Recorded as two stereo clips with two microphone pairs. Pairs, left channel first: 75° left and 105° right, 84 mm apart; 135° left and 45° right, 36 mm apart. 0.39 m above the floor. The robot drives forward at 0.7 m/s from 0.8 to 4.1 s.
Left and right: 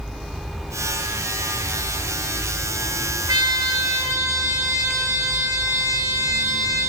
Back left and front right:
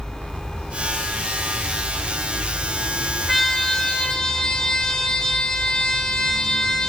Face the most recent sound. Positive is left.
turn(degrees=-155)